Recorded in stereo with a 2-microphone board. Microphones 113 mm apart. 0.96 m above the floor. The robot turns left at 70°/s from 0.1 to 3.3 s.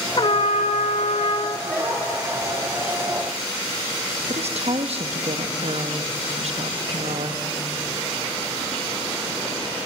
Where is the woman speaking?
65° right (ahead or behind), 1.3 m.